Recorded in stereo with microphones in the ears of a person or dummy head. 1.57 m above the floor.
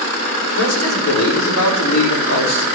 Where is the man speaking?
75° left (ahead or behind), 5 m; by 2.7 s 80° left, 4 m.